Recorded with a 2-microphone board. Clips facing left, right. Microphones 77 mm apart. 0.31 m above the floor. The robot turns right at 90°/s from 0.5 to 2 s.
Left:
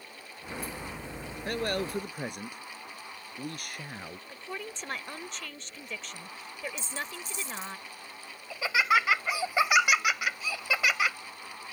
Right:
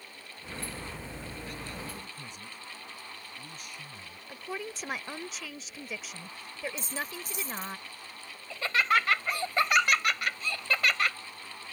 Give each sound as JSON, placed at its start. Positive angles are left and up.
{"t": 1.4, "sound": "a man speaking", "azimuth_deg": 65}
{"t": 4.3, "sound": "a woman speaking", "side_deg": -5}
{"t": 6.8, "sound": "a dropped coin", "side_deg": -45}
{"t": 8.5, "sound": "laughter", "side_deg": 10}